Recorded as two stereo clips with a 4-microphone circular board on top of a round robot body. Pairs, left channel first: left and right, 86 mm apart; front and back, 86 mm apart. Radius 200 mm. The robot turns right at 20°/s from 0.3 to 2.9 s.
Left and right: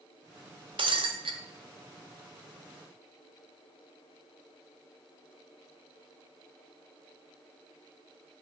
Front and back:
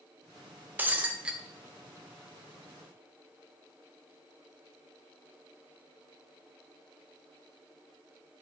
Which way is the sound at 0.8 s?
110° right.